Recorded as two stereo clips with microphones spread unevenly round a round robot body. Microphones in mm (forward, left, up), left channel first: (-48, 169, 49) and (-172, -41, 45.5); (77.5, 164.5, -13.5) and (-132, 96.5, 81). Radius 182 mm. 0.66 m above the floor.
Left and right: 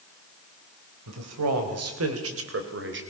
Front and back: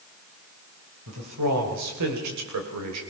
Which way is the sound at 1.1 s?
115° right.